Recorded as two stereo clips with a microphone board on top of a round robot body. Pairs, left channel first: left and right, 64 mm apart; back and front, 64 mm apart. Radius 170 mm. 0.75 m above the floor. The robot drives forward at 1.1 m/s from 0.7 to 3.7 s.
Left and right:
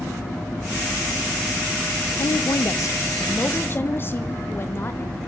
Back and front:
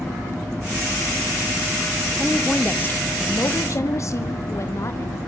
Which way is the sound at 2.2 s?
95° left.